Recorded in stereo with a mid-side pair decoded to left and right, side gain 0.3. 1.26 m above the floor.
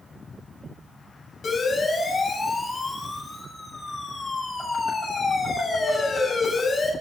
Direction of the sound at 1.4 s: 65° left.